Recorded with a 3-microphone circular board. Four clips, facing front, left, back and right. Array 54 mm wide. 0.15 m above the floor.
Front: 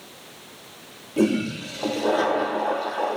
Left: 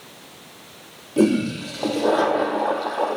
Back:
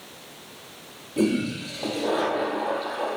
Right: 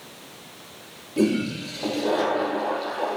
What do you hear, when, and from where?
1.2 s a toilet flushing: 70° left, 2.5 m